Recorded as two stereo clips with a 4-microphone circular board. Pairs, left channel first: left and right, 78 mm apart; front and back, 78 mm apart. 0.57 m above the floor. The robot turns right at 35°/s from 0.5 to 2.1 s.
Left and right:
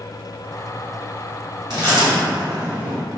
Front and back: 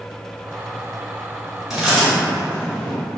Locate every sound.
1.7 s chewing: 95° right, 1.9 m; by 3.0 s 80° right, 1.9 m